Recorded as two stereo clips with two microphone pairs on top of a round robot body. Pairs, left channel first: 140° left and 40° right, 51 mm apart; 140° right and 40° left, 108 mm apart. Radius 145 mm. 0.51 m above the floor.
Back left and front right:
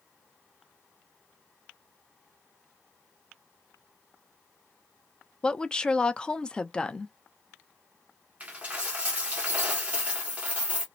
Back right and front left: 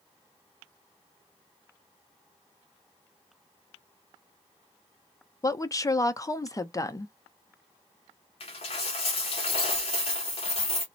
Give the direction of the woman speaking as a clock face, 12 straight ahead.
5 o'clock.